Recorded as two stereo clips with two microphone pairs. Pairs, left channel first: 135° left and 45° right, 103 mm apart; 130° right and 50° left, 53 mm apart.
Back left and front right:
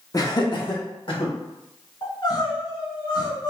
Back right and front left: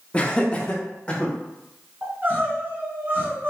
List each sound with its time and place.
0.1 s laughter: 170° left, 0.9 m; by 1.3 s 160° left, 2 m
2.0 s crying: 95° left, 2 m